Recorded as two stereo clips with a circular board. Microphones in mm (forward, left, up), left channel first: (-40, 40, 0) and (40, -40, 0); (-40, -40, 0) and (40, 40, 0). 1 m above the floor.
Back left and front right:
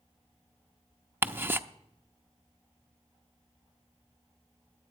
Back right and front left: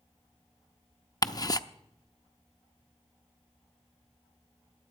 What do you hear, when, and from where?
1.2 s ticking: 105° right, 0.6 m